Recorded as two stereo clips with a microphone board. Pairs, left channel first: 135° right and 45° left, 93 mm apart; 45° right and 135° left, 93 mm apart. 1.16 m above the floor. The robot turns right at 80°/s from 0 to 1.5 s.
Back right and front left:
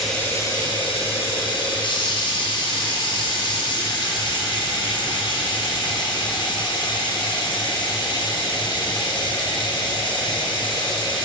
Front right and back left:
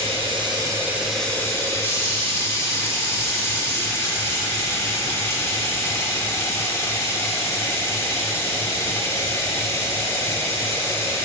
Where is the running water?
135° left, 0.9 m; by 11.2 s 105° right, 0.9 m.